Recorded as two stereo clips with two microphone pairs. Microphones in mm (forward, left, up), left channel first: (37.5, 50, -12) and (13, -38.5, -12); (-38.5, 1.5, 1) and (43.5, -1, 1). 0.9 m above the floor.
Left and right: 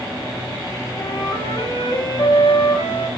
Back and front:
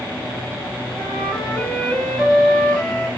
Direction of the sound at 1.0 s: 95° left.